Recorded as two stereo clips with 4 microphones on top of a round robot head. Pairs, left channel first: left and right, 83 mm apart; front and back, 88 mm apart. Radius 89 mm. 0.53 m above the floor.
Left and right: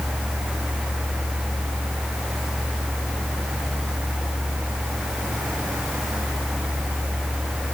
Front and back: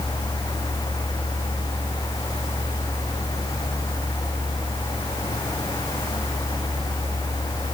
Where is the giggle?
No giggle in this recording.